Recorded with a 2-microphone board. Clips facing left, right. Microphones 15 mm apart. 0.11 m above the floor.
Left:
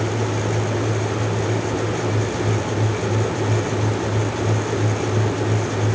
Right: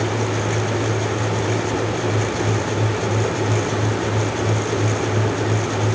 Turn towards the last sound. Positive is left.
No sound to turn to.